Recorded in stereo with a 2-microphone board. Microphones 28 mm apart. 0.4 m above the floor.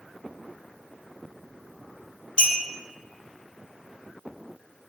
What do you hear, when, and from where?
2.4 s a clink: 45° left (ahead or behind), 0.7 m